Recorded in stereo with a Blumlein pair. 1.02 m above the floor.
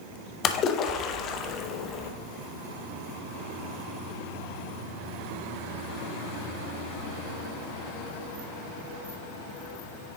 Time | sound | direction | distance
0.4 | a splash | 30° left | 0.6 m